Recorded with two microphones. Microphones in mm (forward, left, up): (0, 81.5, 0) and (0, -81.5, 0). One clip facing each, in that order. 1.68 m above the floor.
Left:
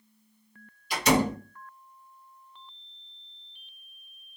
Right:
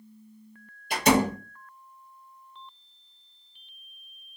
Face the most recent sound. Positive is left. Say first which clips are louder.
# right 2 dB
turn(degrees=-50)  # may be behind; listen again after turning